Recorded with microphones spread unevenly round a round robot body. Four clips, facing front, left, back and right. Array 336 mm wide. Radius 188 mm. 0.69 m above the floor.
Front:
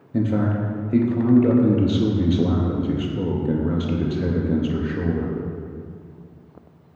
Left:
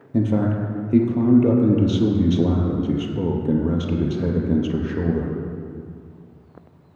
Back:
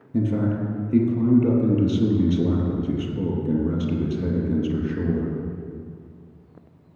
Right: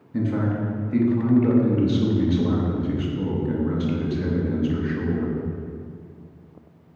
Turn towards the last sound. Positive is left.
turn(degrees=115)